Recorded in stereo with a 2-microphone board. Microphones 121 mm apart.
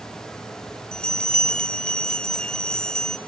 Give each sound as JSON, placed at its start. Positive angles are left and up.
{"t": 0.9, "sound": "a bell", "side_deg": 10, "distance_m": 1.0}